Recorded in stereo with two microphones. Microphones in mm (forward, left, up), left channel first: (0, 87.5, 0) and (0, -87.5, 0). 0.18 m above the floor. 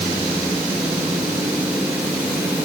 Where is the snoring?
No snoring in this recording.